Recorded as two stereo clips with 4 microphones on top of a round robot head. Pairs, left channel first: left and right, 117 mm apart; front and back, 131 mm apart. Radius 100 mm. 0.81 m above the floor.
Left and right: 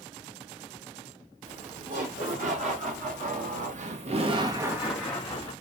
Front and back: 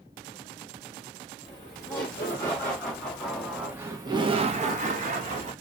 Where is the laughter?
70° right, 2.5 m; by 5.5 s 160° left, 1.0 m.